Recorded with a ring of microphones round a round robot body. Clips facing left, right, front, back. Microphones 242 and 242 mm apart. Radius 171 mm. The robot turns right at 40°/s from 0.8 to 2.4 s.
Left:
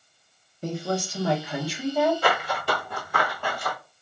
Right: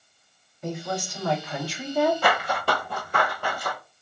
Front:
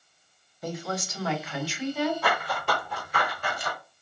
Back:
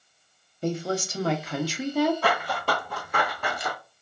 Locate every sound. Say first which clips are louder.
0.6 s a woman speaking: left 3 dB, back 6 dB; 130° left, 0.6 m; by 2.1 s 175° right, 0.6 m
2.2 s running footsteps: right 1 dB, back 2 dB; 120° right, 0.9 m; by 3.8 s straight behind, 0.9 m